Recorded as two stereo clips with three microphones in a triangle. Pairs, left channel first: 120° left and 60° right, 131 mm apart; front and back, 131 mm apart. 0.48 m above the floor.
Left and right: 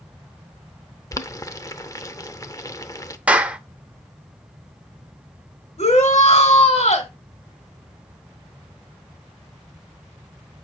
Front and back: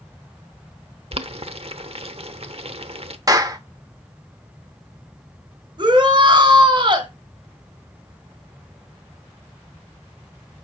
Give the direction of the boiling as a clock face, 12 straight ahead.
6 o'clock.